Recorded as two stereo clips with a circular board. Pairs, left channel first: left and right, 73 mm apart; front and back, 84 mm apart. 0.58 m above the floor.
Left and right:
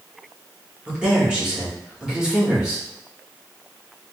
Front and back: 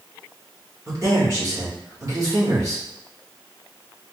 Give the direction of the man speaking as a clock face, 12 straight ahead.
5 o'clock.